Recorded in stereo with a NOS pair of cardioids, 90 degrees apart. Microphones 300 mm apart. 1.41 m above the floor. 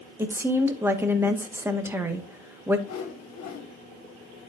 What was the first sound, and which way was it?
A woman speaking, 10° right.